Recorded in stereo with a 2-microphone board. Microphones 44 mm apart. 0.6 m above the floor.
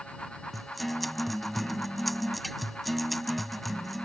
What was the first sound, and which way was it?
A guitar, centre (ahead or behind).